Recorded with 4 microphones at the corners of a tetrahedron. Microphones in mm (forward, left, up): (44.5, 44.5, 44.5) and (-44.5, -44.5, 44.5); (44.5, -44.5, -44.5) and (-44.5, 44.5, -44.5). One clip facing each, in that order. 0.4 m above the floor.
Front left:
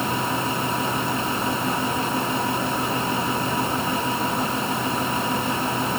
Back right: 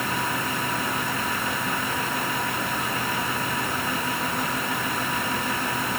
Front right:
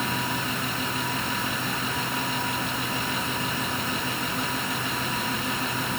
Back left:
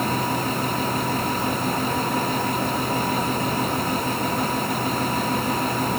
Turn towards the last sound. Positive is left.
No sound to turn to.